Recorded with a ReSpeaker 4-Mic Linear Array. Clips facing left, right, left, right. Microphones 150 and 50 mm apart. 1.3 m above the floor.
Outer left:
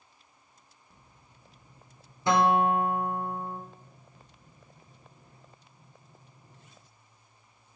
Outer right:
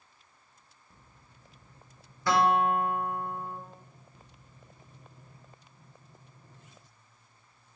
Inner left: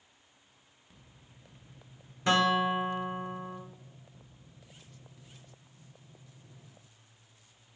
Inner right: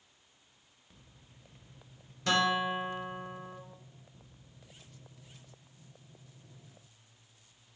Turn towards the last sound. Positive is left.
turn(degrees=20)  # may be behind; listen again after turning